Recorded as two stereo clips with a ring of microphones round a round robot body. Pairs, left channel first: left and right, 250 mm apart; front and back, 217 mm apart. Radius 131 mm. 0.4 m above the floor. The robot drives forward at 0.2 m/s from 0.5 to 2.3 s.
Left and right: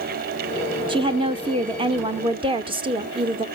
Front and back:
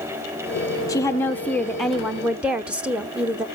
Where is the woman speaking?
50° right, 0.8 m; by 3.5 s 105° right, 0.8 m.